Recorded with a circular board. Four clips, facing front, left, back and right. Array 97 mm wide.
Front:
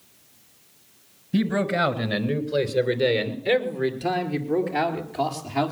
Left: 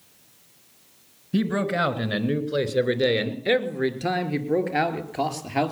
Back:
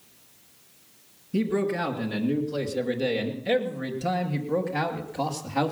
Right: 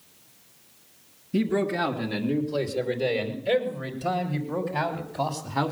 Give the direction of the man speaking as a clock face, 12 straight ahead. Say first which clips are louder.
Left 1 dB, front 2 dB; 10 o'clock.